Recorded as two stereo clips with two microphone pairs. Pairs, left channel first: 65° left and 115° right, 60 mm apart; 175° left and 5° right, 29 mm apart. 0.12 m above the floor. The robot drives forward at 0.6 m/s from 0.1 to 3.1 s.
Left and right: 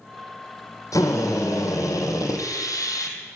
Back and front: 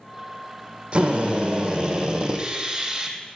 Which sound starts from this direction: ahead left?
A drill, at 0.9 s.